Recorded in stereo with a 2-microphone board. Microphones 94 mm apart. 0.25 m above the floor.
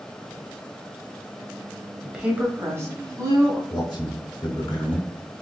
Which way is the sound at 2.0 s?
5° right (ahead or behind).